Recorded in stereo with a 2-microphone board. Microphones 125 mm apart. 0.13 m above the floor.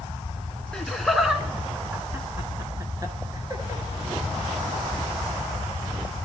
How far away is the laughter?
About 1.1 m.